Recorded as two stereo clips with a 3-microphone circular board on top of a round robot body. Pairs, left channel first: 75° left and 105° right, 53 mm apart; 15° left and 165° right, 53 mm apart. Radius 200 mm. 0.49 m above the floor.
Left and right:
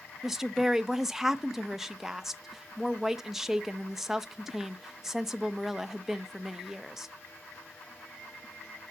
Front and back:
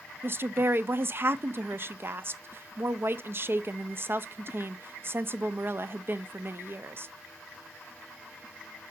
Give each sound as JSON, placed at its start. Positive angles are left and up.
{"t": 0.2, "sound": "a woman speaking", "azimuth_deg": 175, "distance_m": 0.8}